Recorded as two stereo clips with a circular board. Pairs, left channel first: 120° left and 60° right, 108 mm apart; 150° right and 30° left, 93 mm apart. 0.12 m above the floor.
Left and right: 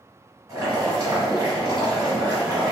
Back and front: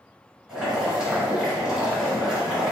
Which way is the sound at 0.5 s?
45° right.